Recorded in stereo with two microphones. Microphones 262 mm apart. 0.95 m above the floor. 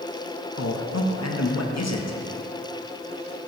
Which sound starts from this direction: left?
A man speaking, at 0.6 s.